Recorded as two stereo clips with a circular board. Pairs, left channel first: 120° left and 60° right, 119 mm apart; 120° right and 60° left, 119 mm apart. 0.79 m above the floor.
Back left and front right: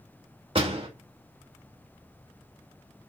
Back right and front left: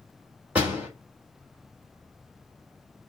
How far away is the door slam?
About 2 m.